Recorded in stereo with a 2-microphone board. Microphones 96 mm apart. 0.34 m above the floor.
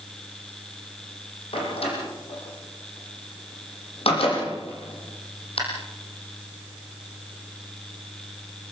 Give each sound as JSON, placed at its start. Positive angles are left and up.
{"t": 1.5, "sound": "a door slam", "side_deg": 75, "distance_m": 8.5}